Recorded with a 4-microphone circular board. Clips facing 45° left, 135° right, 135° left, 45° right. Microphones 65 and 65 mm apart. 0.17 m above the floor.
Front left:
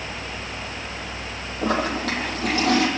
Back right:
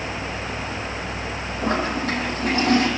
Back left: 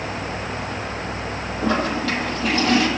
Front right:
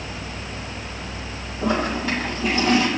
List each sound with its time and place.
1.6 s a toilet flushing: 30° left, 6.5 m